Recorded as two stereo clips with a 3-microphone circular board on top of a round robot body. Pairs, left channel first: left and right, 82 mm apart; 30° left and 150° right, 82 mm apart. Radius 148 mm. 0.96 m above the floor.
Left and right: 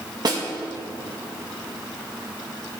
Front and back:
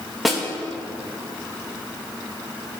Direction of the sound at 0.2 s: 60° right.